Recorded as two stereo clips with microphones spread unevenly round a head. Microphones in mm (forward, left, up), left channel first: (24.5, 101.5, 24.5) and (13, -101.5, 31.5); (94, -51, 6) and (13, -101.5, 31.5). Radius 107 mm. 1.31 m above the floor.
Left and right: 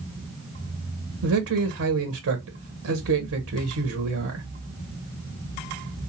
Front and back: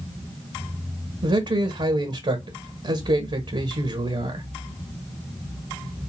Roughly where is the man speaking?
Behind right.